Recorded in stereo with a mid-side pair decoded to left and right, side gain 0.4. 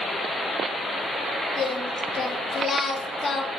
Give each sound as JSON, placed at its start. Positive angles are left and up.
{"t": 1.6, "sound": "singing", "azimuth_deg": 50, "distance_m": 0.6}